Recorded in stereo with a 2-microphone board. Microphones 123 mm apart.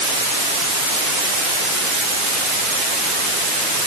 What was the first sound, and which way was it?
Only background noise.